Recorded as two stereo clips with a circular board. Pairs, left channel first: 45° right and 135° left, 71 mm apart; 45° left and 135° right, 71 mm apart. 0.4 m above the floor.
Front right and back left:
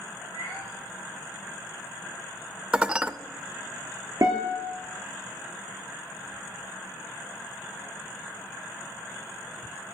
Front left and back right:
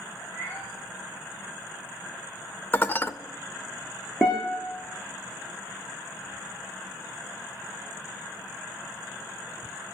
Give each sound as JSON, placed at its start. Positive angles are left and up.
{"t": 0.2, "sound": "a cat meowing", "azimuth_deg": 105, "distance_m": 8.0}
{"t": 2.7, "sound": "dishes clattering", "azimuth_deg": 75, "distance_m": 0.5}
{"t": 4.2, "sound": "a guitar", "azimuth_deg": 110, "distance_m": 4.0}